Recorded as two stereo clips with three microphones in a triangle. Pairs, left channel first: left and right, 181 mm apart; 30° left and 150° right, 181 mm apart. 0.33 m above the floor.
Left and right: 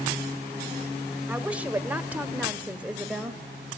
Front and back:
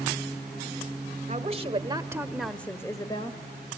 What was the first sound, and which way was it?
A woman speaking, 170° right.